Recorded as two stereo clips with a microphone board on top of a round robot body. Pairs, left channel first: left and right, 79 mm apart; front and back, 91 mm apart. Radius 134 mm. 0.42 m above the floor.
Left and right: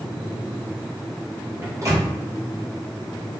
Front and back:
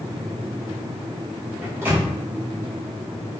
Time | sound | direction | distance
1.6 | a microwave | 125° right | 1.2 m